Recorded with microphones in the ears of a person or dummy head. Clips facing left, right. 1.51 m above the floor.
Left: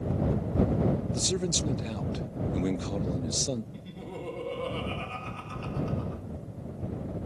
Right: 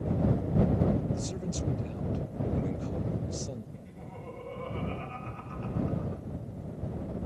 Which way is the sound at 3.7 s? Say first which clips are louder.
Left 5 dB; 50° left (ahead or behind).